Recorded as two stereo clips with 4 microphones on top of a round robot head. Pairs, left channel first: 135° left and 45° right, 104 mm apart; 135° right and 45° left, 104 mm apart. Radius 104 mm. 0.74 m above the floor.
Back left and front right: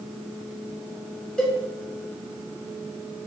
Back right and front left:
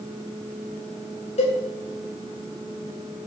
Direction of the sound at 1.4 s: 145° right.